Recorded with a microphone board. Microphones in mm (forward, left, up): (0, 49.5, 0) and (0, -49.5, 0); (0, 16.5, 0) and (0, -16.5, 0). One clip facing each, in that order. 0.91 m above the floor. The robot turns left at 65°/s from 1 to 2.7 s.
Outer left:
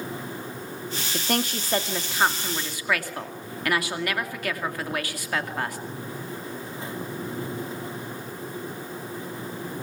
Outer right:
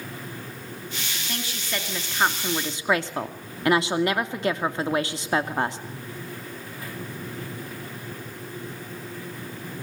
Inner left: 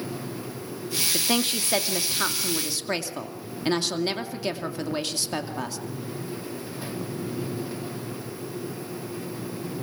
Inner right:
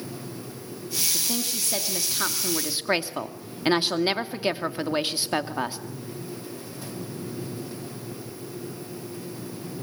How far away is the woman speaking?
About 2.5 m.